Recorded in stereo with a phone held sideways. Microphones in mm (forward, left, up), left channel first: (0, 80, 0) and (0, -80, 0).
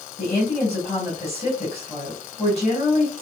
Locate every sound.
0.2 s a woman speaking: 45° left (ahead or behind), 3 m